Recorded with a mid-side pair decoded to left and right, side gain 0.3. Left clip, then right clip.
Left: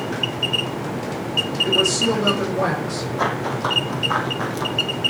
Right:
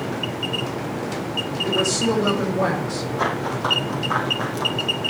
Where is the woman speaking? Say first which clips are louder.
Left 1 dB; 15° left, 6.5 m.